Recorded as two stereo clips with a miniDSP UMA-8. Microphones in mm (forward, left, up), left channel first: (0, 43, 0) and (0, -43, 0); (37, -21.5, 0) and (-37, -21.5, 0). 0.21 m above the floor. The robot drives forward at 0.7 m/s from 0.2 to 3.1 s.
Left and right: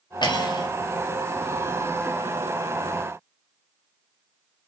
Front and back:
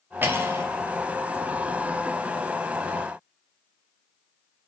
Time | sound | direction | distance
0.2 | cutlery clinking | 120° left | 3 m